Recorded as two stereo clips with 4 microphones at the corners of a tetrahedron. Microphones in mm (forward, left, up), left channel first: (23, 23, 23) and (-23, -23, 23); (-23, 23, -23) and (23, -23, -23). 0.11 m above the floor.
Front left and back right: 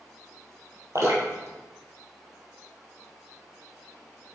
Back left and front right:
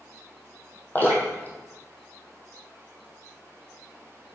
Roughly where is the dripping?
Behind.